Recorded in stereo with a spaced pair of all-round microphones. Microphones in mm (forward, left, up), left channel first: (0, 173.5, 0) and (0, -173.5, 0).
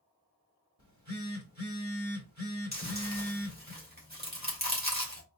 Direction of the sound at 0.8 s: 50° right (ahead or behind).